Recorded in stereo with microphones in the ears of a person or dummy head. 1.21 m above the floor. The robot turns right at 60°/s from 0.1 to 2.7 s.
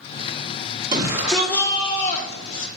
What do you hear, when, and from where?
0.9 s a shout: 30° right, 2 m; by 2.7 s 75° left, 2 m